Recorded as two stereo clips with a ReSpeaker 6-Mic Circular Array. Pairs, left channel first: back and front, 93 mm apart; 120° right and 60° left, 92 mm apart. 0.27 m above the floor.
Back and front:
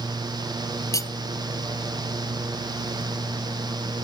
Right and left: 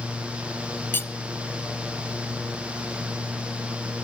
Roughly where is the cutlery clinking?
Behind.